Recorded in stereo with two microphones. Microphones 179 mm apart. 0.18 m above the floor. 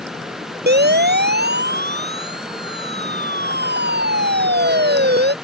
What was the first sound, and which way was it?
A siren, 60° right (ahead or behind).